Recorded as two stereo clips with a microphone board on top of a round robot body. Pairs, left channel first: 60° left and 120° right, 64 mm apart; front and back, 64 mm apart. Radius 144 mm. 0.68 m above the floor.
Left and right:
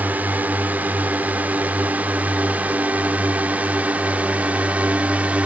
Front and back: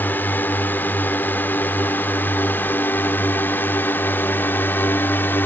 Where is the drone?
60° right; by 5.5 s 55° right.